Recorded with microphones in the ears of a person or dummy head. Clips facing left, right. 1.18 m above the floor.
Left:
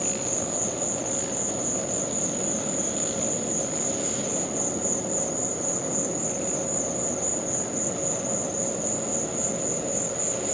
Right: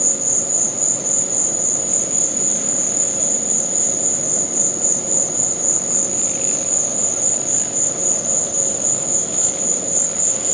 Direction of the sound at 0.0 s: 50° right (ahead or behind).